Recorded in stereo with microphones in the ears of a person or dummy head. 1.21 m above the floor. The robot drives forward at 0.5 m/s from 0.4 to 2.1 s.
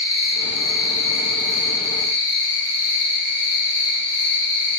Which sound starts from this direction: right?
An insect, at 0.0 s.